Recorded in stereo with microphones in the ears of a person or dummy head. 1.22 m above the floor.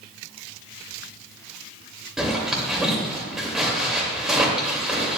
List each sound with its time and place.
2.2 s a zipper: 5° right (ahead or behind), 2 m